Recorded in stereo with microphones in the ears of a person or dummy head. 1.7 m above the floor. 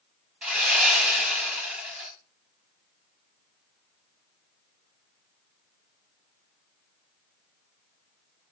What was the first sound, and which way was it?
Sawing, 5° right (ahead or behind).